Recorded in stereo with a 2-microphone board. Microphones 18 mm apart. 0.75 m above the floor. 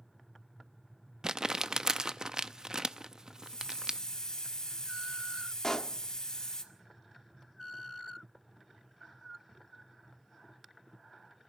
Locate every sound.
1.2 s crumpling: 45° right (ahead or behind), 0.6 m
3.4 s a hiss: 45° left (ahead or behind), 1.8 m
5.6 s a pop: 40° left (ahead or behind), 0.6 m